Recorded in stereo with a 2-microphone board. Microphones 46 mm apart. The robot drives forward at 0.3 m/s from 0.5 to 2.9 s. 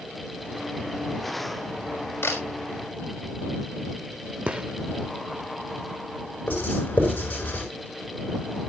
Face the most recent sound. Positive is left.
turn(degrees=35)  # may be behind; listen again after turning